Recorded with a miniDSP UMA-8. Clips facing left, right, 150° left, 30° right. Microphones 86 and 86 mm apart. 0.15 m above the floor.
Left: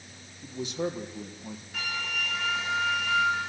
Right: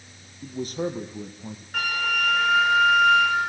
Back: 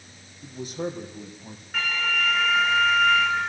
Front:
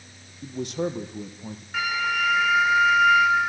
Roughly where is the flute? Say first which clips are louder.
Right 9 dB, front 2 dB; right.